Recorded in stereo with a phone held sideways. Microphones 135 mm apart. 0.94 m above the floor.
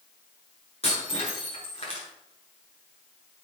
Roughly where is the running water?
I don't hear running water.